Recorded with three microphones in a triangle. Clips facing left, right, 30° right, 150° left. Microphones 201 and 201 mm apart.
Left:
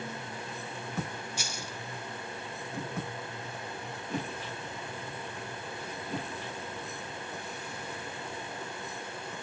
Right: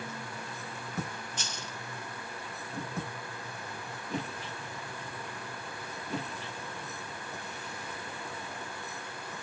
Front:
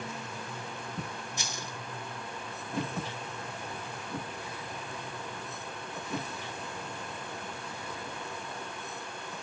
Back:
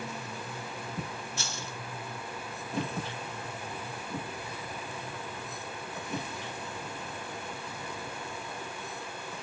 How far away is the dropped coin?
About 0.7 m.